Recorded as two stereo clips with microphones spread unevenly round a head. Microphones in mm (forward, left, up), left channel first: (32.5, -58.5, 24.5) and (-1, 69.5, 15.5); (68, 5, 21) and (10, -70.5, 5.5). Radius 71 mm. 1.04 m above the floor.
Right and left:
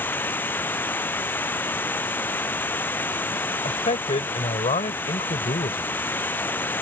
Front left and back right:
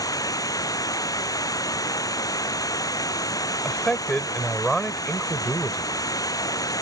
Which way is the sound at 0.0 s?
Straight ahead.